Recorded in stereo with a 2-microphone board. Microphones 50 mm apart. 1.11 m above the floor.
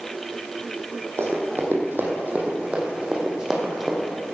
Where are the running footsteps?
55° right (ahead or behind), 3 m; by 4.1 s 5° right (ahead or behind), 3.5 m.